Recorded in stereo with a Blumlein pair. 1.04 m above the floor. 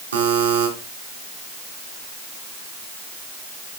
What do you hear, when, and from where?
0.1 s a buzzer: 70° right, 4 m